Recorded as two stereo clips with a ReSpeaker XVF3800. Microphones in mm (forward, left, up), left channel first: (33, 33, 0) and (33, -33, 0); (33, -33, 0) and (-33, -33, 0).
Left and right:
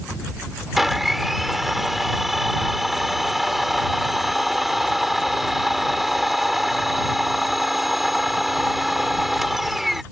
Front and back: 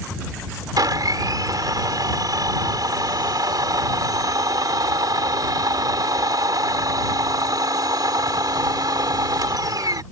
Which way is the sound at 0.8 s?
175° right.